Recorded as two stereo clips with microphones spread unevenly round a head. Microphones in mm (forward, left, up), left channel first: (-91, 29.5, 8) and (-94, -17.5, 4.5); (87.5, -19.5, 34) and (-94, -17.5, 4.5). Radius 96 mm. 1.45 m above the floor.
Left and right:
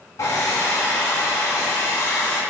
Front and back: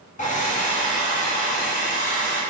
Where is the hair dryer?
55° left, 2.5 m.